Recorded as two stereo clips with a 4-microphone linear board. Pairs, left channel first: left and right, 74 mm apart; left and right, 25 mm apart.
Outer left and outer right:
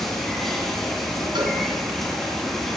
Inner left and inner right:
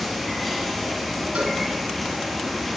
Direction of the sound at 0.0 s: 5° left (ahead or behind).